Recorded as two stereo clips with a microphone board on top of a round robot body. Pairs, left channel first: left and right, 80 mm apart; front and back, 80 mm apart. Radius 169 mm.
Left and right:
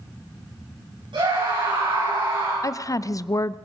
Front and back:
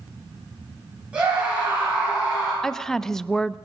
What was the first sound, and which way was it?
A scream, 105° right.